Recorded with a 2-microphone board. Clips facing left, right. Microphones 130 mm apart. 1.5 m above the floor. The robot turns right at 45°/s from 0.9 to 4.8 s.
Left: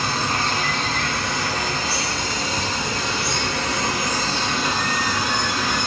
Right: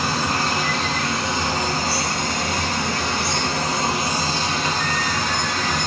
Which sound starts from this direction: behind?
Running water, at 0.0 s.